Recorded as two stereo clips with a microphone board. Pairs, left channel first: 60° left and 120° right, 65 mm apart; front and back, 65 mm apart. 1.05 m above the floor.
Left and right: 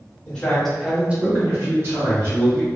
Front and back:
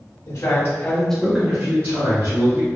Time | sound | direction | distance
0.3 | a man speaking | 10° right | 1.5 m